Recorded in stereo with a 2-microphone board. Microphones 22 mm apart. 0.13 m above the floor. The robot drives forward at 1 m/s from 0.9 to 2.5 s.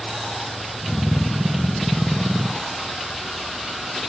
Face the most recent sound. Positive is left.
No sound to turn to.